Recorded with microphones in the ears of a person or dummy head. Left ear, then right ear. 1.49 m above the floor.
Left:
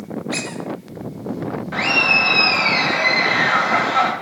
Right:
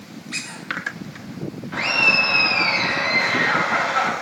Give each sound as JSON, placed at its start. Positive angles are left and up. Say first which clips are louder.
{"t": 0.3, "sound": "a squeak", "louder": "left 3 dB", "side_deg": 15, "distance_m": 1.3}
{"t": 1.7, "sound": "laughter", "louder": "left 1 dB", "side_deg": 20, "distance_m": 3.0}